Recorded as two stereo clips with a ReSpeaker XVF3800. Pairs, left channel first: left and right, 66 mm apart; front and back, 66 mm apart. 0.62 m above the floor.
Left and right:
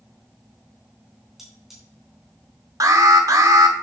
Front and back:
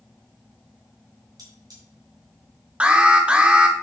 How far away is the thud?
I don't hear a thud.